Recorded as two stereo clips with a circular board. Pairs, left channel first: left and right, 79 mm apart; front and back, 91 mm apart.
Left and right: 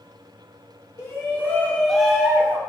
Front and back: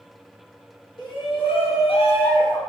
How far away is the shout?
About 1.2 m.